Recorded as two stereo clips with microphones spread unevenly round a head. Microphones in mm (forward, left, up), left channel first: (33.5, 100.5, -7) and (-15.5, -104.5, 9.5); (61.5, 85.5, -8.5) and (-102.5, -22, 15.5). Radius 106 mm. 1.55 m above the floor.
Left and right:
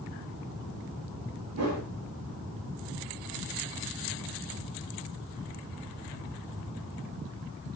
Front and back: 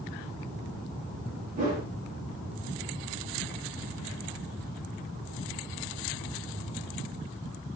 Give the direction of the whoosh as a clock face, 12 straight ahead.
3 o'clock.